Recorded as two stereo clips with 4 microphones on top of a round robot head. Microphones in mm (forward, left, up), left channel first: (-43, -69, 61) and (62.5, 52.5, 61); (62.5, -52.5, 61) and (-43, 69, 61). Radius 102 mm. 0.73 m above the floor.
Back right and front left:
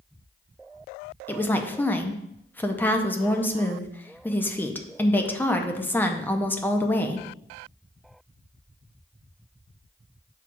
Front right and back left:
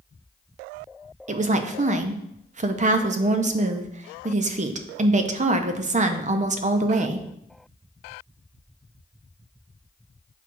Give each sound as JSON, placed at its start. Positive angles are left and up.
{"t": 1.3, "sound": "a woman speaking", "azimuth_deg": 155, "distance_m": 0.7}